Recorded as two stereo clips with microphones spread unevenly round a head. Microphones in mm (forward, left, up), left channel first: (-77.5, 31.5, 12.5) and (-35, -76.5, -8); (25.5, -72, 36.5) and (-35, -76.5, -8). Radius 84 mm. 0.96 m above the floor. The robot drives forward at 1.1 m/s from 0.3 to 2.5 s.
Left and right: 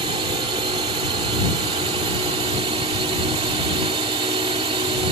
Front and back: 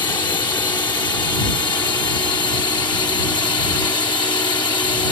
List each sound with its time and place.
0.0 s a drone: 15° right